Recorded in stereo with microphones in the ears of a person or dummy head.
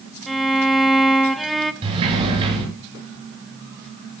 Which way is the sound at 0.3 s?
Centre (ahead or behind).